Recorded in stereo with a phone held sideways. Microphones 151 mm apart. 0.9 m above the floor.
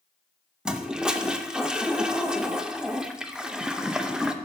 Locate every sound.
0.7 s a toilet flushing: 5° right (ahead or behind), 0.5 m